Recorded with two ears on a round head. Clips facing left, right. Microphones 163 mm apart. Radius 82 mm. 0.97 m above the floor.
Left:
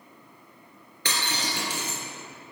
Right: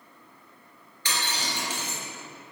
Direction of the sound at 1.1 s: 50° left (ahead or behind).